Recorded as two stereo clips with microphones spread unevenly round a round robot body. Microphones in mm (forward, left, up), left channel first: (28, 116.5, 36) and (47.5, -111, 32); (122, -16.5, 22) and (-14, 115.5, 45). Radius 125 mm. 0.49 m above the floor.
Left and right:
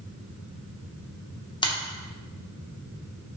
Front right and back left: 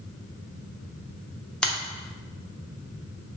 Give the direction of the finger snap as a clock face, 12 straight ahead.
11 o'clock.